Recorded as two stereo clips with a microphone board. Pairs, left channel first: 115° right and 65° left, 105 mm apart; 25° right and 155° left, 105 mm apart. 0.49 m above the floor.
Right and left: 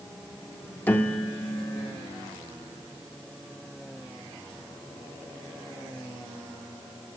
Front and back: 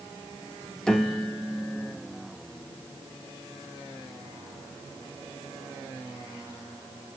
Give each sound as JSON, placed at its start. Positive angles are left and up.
{"t": 0.9, "sound": "a piano", "azimuth_deg": -90, "distance_m": 0.9}